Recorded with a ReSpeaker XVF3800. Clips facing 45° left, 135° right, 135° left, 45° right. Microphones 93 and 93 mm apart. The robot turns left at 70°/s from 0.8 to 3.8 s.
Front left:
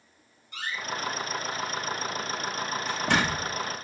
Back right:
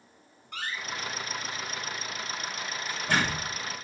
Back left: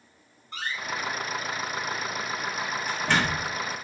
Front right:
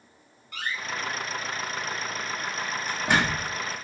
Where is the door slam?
170° right, 7 m; by 3.5 s 5° left, 7 m.